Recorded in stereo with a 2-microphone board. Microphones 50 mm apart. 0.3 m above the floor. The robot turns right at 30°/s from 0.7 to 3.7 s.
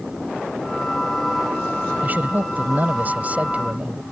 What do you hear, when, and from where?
2.0 s a man speaking: 100° right; by 4.0 s 50° right